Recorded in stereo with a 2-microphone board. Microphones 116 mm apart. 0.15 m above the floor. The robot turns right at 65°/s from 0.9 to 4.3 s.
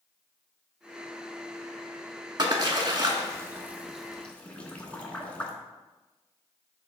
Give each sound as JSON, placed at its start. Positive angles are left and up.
{"t": 2.4, "sound": "a splash", "side_deg": -40, "distance_m": 0.6}